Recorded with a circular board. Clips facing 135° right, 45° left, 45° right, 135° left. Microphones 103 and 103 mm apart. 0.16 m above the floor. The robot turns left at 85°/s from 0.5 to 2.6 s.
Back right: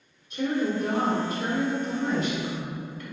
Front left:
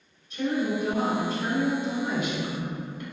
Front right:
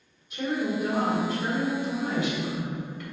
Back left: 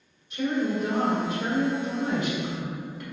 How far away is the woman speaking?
About 1.3 m.